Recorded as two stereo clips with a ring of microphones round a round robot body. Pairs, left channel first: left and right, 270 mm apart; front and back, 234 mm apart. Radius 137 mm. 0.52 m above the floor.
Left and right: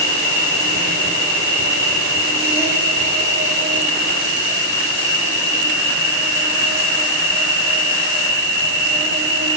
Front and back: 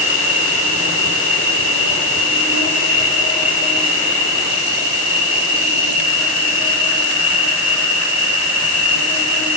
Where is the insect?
165° right, 2 m.